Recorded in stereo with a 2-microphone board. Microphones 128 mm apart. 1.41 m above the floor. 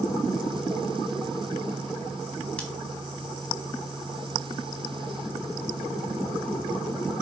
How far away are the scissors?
About 1.3 m.